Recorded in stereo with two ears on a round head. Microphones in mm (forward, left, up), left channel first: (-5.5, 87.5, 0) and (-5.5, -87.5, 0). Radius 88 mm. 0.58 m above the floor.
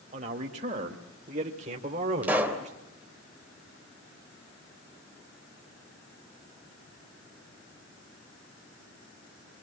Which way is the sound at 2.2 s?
10° right (ahead or behind).